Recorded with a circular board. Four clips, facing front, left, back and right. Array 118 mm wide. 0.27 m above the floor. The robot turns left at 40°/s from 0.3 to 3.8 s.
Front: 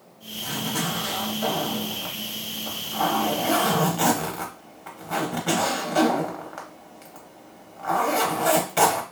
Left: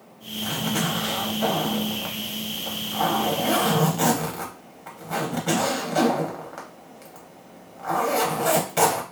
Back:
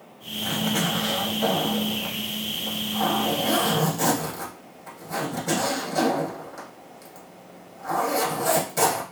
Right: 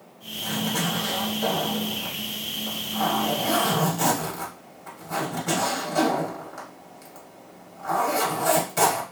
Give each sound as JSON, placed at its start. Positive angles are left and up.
{"t": 0.4, "sound": "a zipper", "azimuth_deg": 160, "distance_m": 0.8}